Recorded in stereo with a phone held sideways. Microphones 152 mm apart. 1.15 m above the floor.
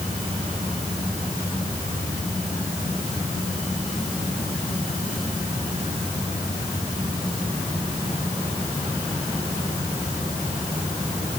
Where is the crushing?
No crushing in this recording.